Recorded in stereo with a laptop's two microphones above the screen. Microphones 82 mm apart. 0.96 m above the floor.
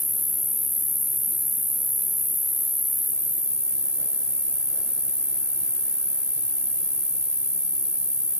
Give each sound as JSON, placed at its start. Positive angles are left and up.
{"t": 0.0, "sound": "an insect", "side_deg": -65, "distance_m": 1.6}